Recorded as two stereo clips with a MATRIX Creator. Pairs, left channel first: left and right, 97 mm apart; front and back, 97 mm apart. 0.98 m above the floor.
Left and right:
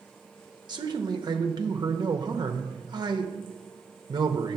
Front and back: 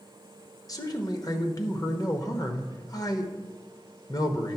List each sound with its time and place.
0.7 s a man speaking: 50° right, 0.8 m